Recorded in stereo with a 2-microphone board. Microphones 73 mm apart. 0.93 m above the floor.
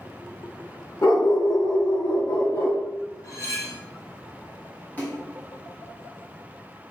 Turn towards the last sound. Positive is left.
turn(degrees=20)  # may be behind; listen again after turning